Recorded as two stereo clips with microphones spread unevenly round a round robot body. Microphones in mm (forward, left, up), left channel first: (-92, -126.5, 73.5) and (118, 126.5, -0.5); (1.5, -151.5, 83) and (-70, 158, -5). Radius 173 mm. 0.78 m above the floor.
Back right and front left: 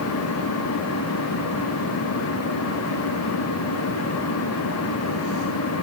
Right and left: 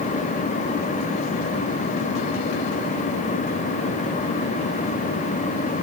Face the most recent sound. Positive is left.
No sound to turn to.